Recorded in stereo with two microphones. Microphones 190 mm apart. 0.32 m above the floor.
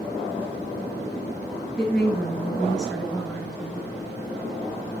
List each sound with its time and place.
1.8 s a woman speaking: 5° left (ahead or behind), 2.5 m